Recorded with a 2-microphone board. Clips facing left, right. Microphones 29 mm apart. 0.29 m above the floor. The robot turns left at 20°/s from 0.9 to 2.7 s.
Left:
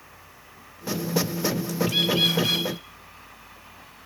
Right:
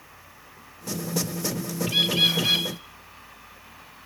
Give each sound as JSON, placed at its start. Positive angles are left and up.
{"t": 1.9, "sound": "a bird", "side_deg": 10, "distance_m": 6.0}